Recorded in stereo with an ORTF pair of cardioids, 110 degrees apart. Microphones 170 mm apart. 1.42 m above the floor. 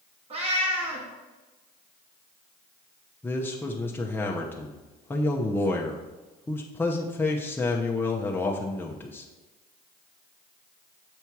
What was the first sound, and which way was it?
A cat meowing, 40° right.